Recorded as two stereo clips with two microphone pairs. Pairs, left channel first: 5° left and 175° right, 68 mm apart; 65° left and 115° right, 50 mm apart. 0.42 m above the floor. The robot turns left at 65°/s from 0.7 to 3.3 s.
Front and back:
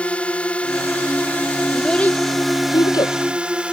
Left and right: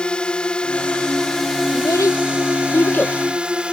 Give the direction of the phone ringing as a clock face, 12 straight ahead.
No phone ringing in this recording.